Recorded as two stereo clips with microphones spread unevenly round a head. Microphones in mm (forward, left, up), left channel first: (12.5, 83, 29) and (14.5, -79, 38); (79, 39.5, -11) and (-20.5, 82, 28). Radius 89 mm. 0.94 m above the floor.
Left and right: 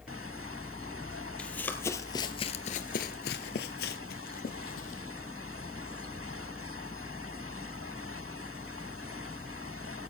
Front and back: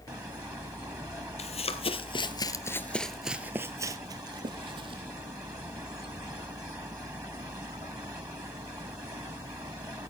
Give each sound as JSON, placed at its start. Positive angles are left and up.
{"t": 1.4, "sound": "running footsteps", "azimuth_deg": 5, "distance_m": 1.9}